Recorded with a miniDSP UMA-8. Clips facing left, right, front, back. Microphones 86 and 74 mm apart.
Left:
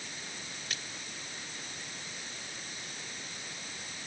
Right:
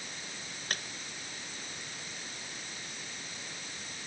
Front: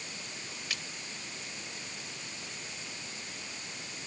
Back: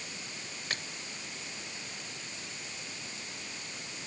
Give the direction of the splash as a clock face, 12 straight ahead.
4 o'clock.